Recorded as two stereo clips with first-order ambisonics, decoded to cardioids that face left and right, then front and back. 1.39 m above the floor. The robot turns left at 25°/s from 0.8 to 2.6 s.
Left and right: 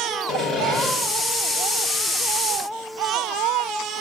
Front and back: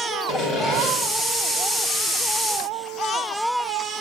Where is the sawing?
20° left, 1.7 m; by 0.9 s 15° left, 1.7 m.